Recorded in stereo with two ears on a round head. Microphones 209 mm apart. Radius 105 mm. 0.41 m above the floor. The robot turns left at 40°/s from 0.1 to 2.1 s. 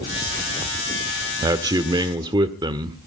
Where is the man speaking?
15° right (ahead or behind), 1.0 m; by 3.0 s 20° right (ahead or behind), 1.0 m.